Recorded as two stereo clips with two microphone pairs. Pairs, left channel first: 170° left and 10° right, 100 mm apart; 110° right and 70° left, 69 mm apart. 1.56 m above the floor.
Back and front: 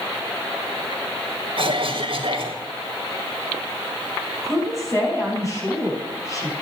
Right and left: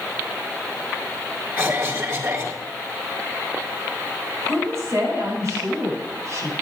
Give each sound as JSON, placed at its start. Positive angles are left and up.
{"t": 1.6, "sound": "a cough", "azimuth_deg": 20, "distance_m": 4.5}
{"t": 4.4, "sound": "a woman speaking", "azimuth_deg": 115, "distance_m": 7.5}